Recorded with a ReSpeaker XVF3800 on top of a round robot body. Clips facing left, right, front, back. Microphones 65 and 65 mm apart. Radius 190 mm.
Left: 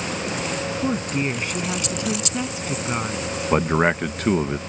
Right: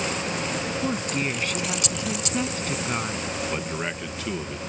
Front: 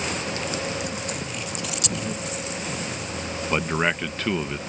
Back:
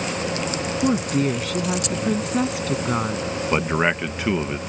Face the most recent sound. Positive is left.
turn(degrees=105)